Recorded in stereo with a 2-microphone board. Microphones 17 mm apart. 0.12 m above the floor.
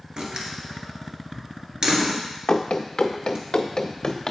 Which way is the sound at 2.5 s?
85° left.